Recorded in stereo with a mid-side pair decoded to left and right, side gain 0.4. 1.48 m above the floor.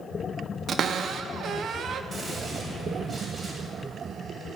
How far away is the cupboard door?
About 1.1 m.